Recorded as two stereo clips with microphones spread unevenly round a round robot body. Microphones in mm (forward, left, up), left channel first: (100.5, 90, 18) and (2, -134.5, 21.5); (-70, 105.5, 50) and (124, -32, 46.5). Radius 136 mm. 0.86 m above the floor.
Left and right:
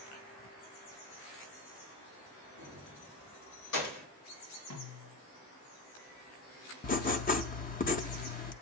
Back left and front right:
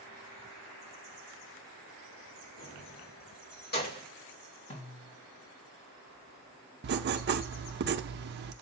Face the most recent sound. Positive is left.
turn(degrees=10)